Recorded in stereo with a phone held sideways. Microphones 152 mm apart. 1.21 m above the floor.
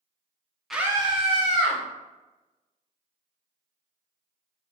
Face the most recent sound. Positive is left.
turn(degrees=-55)  # may be behind; listen again after turning